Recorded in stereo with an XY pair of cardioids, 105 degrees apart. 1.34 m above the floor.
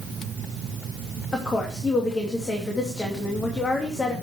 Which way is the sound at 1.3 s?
35° left.